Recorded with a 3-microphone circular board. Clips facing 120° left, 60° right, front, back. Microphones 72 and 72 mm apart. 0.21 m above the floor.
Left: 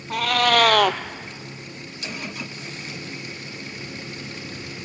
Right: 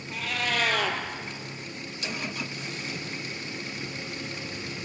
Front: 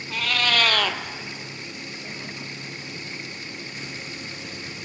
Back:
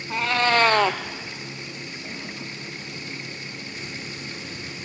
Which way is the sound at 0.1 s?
120° left.